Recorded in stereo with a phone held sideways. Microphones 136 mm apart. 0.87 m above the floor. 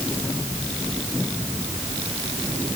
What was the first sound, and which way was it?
Only background noise.